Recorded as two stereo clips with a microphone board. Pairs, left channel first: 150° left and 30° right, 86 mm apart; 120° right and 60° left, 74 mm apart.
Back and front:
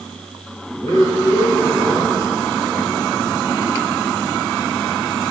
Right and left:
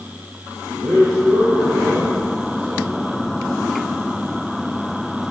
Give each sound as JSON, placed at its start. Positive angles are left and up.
{"t": 0.8, "sound": "a man speaking", "azimuth_deg": 80, "distance_m": 5.0}